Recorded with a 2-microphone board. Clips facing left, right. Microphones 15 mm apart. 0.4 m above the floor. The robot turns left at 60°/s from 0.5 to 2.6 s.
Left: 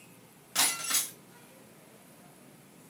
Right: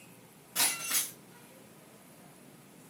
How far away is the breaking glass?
About 1.3 m.